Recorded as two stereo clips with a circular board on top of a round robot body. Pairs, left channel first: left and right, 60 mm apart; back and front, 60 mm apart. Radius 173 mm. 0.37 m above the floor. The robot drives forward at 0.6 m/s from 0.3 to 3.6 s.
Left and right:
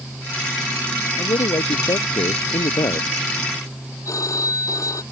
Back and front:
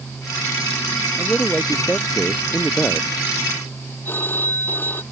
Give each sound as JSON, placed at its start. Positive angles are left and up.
{"t": 1.2, "sound": "a man speaking", "azimuth_deg": 95}
{"t": 4.0, "sound": "a phone ringing", "azimuth_deg": 120}